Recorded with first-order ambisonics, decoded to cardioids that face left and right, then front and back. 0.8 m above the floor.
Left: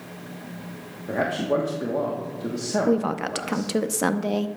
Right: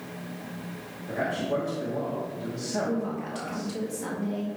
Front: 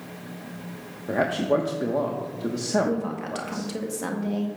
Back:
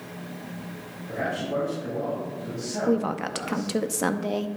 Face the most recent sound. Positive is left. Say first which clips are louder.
# left 7 dB, back 3 dB
turn(degrees=120)